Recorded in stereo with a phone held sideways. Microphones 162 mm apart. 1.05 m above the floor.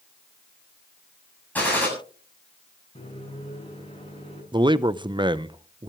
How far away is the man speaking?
About 0.6 m.